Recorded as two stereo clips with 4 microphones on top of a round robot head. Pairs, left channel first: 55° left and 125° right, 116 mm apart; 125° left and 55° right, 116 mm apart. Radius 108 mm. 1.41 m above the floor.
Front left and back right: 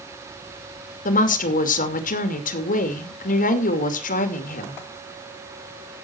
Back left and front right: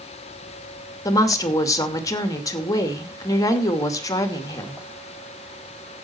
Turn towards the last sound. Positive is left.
turn(degrees=60)